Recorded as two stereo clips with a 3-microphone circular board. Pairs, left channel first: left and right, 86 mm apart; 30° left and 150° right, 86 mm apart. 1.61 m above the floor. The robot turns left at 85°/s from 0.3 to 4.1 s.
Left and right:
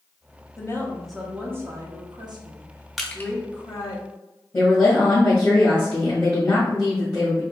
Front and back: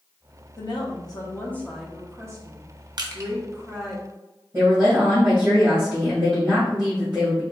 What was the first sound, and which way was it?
A woman speaking, 45° left.